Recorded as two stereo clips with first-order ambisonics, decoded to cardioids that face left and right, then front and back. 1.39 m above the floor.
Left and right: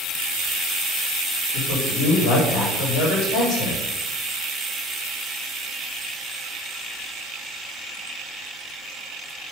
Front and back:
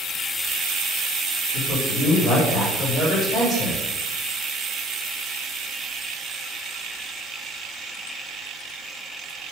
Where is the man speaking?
85° left, 3.5 m.